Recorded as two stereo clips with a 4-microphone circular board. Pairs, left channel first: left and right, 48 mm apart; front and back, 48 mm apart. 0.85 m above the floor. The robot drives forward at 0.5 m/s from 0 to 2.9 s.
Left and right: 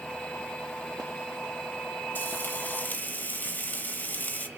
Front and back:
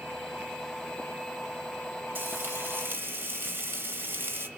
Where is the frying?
135° left, 2.5 m; by 4.5 s 140° left, 3 m.